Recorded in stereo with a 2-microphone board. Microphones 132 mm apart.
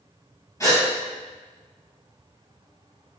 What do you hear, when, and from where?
0.6 s a gasp: 25° left (ahead or behind), 1.3 m